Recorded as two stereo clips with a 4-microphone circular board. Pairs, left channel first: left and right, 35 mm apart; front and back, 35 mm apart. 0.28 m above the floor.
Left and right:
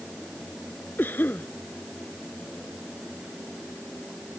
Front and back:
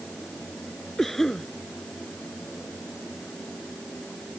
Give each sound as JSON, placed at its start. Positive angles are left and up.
{"t": 1.0, "sound": "a cough", "azimuth_deg": 80}